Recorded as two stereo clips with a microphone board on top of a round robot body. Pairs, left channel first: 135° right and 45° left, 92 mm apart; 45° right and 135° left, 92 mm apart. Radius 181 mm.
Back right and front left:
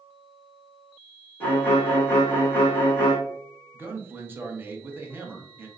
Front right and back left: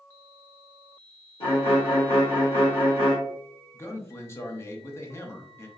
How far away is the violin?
About 1.7 m.